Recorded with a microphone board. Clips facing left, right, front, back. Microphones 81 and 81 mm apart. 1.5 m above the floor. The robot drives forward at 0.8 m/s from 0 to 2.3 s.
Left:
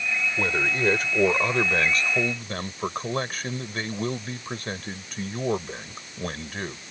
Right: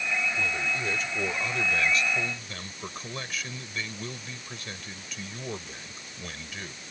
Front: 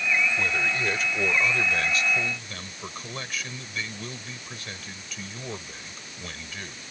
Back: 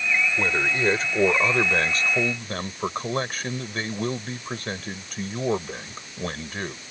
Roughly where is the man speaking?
Behind left.